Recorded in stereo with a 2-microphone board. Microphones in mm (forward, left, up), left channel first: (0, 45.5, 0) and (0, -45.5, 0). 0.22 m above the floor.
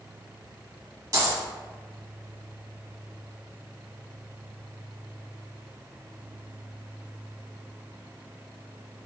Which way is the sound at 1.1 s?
40° right (ahead or behind).